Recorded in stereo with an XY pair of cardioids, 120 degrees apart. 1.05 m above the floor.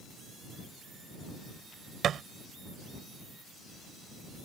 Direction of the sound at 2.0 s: 55° right.